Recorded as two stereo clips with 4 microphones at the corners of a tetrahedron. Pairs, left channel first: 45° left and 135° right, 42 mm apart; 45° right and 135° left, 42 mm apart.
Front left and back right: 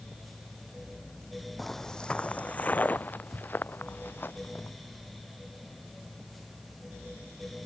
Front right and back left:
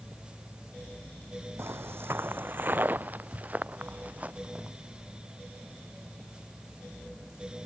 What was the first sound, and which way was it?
Footsteps, 130° left.